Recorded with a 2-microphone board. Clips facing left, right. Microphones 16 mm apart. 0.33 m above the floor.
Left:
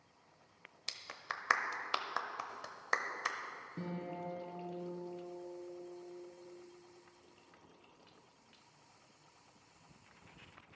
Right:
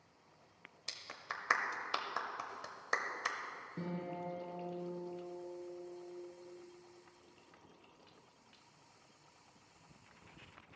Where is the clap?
10° left (ahead or behind), 0.8 m.